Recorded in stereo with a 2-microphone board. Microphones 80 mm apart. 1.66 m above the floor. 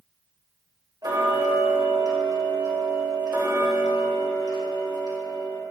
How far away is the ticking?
About 1.6 m.